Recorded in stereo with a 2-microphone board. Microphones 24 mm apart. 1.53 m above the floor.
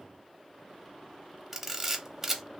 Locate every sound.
1.5 s a camera shutter: 15° right (ahead or behind), 0.7 m